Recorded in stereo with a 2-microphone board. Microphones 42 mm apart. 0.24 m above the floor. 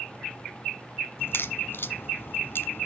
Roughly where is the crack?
Left.